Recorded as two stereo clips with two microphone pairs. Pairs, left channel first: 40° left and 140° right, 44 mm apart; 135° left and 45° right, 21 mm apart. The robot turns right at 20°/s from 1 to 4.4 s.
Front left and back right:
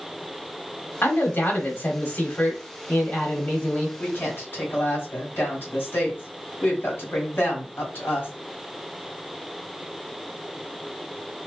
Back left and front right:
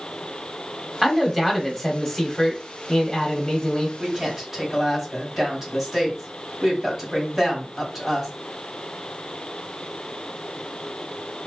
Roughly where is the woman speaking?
Ahead.